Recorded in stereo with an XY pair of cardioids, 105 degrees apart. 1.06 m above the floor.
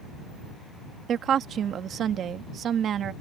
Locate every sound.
1.1 s a woman speaking: 60° right